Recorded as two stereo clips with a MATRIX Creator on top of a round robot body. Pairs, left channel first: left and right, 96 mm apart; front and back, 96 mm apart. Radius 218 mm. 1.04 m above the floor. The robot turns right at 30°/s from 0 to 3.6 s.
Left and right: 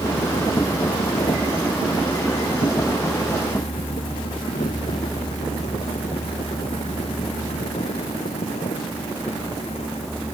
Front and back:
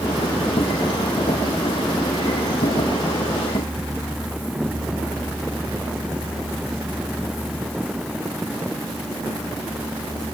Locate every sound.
Only background noise.